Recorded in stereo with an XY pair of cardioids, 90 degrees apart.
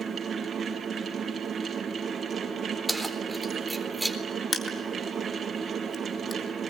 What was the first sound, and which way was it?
A fan, 55° right.